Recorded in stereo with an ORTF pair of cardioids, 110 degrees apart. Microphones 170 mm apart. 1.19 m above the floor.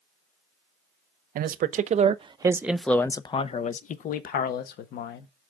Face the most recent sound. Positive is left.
turn(degrees=65)